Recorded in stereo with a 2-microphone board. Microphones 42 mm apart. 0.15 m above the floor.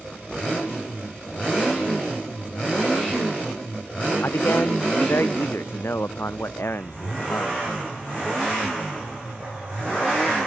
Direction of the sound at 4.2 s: 70° left (ahead or behind).